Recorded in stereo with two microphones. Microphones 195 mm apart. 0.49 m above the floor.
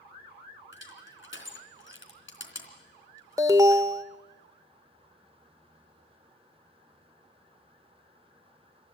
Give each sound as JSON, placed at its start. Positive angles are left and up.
{"t": 0.7, "sound": "crushing", "side_deg": 80, "distance_m": 3.0}
{"t": 3.4, "sound": "an alarm", "side_deg": -15, "distance_m": 0.9}